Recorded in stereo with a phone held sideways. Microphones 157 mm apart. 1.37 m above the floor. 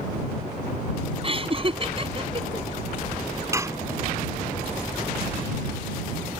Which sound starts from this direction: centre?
Dishes clattering, at 3.5 s.